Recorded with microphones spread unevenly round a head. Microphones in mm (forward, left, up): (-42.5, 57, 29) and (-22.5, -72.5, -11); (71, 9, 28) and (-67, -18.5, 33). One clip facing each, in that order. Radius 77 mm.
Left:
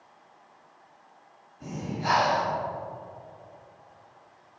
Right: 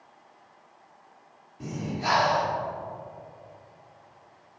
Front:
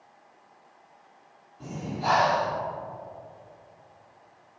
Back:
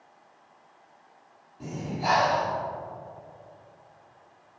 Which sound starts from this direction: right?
Breathing, at 1.6 s.